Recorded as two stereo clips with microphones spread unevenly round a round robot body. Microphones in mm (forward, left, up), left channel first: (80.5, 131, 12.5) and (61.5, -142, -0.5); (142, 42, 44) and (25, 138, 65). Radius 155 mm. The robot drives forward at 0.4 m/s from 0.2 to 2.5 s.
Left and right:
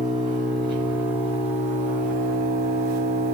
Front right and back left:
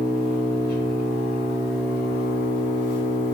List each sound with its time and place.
0.0 s an engine running: 20° right, 1.7 m; by 3.3 s 35° right, 0.9 m